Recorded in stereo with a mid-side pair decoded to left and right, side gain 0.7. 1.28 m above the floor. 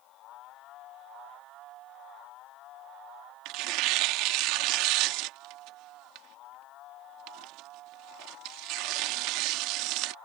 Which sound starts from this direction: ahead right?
Tearing paper, at 3.5 s.